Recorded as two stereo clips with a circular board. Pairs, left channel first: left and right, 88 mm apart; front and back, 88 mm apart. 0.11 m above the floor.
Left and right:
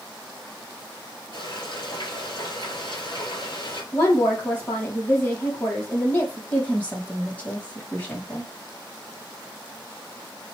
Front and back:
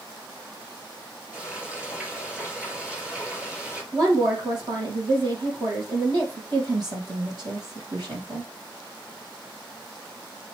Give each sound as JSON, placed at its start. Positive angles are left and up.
{"t": 1.3, "sound": "frying", "azimuth_deg": 110, "distance_m": 4.5}
{"t": 3.9, "sound": "a woman speaking", "azimuth_deg": 160, "distance_m": 3.5}
{"t": 6.5, "sound": "a woman speaking", "azimuth_deg": 160, "distance_m": 4.5}